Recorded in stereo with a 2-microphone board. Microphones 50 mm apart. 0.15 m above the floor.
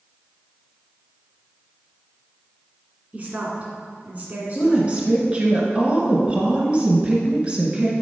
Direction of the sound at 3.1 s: 35° right (ahead or behind).